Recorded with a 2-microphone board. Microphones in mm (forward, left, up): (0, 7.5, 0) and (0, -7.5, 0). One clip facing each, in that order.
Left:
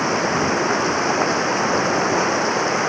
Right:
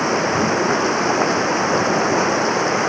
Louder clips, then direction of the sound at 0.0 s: Right 1 dB; centre (ahead or behind).